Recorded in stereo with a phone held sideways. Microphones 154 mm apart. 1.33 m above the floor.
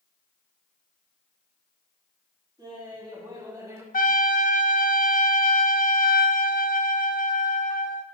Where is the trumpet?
65° left (ahead or behind), 0.5 m.